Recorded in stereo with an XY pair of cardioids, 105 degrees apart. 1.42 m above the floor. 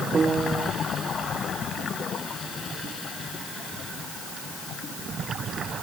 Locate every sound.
0.1 s a piano: 30° right